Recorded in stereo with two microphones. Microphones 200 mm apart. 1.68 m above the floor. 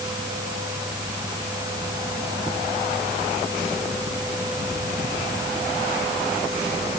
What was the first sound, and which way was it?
Only background noise.